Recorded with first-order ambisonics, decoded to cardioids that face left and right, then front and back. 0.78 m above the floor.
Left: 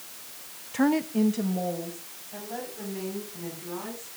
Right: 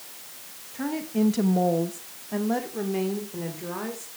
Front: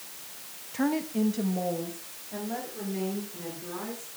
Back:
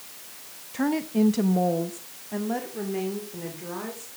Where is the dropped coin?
No dropped coin in this recording.